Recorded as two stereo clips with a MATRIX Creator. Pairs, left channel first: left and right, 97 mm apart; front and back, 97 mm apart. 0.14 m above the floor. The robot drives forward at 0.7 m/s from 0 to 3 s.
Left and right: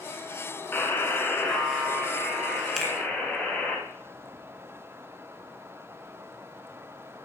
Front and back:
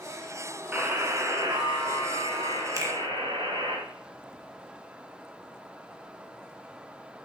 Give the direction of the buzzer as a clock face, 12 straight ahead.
7 o'clock.